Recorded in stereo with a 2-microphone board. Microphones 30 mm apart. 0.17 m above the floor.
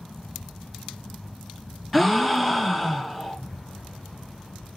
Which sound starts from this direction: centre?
A gasp, at 1.9 s.